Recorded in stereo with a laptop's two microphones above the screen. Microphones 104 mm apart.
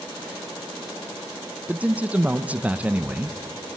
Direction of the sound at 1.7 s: 10° right (ahead or behind).